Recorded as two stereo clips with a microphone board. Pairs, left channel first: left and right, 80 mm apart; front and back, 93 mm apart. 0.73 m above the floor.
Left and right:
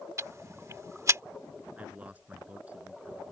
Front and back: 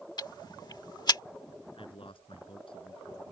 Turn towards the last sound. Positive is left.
turn(degrees=-15)